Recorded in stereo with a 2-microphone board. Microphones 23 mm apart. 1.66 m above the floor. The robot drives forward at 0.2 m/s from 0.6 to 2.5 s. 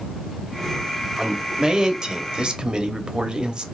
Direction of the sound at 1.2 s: 35° right (ahead or behind).